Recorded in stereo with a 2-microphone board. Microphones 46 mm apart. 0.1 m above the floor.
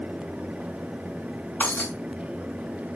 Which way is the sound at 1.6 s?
45° left (ahead or behind).